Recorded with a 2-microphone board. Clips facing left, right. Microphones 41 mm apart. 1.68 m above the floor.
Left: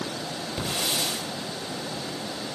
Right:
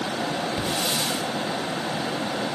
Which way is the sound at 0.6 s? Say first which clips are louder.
Right 3 dB; centre (ahead or behind).